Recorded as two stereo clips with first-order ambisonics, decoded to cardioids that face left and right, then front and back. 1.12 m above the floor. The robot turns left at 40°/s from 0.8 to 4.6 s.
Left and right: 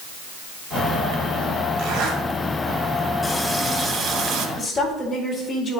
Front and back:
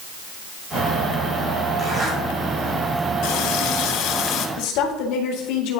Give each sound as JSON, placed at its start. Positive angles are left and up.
{"t": 1.8, "sound": "a zipper", "azimuth_deg": -95, "distance_m": 2.0}
{"t": 3.2, "sound": "a running tap", "azimuth_deg": 5, "distance_m": 0.7}
{"t": 4.6, "sound": "a woman speaking", "azimuth_deg": 15, "distance_m": 1.9}